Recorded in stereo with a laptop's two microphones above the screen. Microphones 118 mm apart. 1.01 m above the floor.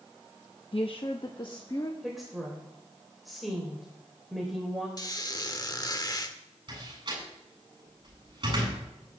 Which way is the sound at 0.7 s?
55° left (ahead or behind).